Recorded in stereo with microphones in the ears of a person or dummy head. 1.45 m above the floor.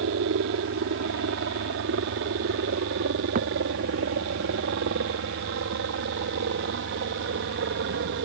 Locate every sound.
0.0 s a helicopter: 70° right (ahead or behind); by 8.2 s 60° right (ahead or behind)
3.4 s a thud: 45° right (ahead or behind)